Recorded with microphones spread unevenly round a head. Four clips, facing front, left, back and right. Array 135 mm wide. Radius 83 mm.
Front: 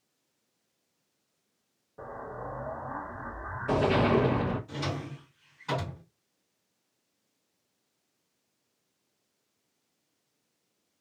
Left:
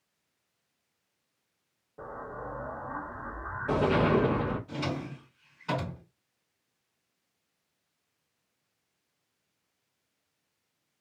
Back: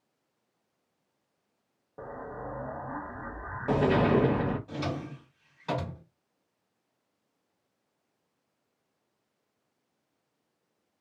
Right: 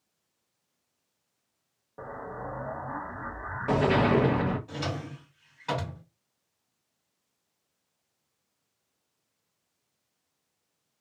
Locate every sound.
2.0 s an explosion: 155° right, 0.6 m
4.7 s a drawer: 155° right, 1.4 m